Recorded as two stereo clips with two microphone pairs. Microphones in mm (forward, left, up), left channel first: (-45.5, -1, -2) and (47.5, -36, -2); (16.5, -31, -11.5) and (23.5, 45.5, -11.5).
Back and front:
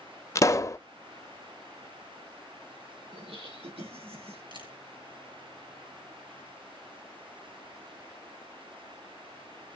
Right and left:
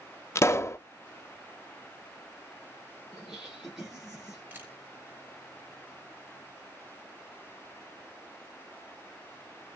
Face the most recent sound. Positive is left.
turn(degrees=15)